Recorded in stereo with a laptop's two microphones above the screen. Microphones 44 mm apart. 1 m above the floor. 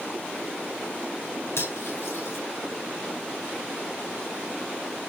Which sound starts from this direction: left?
Cutlery clinking, at 1.6 s.